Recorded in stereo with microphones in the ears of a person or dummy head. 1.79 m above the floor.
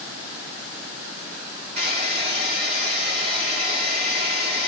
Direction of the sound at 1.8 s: 30° right (ahead or behind).